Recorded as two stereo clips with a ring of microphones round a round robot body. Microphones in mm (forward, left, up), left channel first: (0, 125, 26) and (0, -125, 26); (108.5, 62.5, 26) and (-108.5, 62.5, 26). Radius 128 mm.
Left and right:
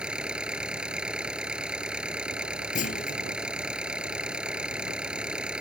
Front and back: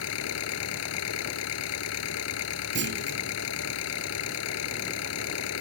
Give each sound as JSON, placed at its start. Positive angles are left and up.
{"t": 0.0, "sound": "an engine running", "azimuth_deg": -5}
{"t": 2.8, "sound": "a clunk", "azimuth_deg": 150}